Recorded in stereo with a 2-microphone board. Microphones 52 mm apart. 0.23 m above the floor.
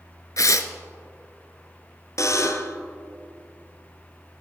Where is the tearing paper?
75° left (ahead or behind), 0.6 m.